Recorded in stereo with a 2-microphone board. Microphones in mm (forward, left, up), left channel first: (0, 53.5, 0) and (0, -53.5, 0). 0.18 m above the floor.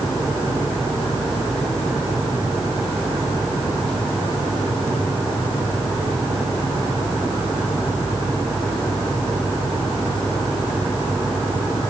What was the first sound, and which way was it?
Only background noise.